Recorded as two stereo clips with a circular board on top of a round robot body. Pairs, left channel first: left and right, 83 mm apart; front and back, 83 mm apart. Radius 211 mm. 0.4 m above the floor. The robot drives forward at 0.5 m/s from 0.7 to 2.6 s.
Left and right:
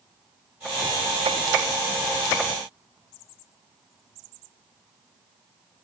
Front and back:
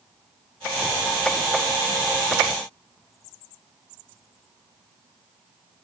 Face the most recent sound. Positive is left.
No sound to turn to.